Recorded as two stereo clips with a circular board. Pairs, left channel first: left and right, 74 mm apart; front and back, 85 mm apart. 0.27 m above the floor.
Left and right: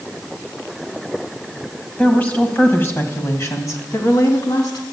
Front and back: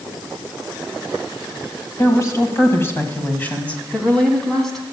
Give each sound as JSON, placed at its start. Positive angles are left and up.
{"t": 2.0, "sound": "a woman speaking", "azimuth_deg": 25, "distance_m": 1.7}